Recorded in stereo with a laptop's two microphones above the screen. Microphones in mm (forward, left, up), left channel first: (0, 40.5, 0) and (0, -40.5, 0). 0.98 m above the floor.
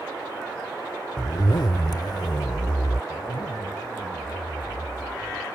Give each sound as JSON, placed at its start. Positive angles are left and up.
{"t": 1.2, "sound": "a zipper", "side_deg": 60}
{"t": 3.1, "sound": "a zipper", "side_deg": 85}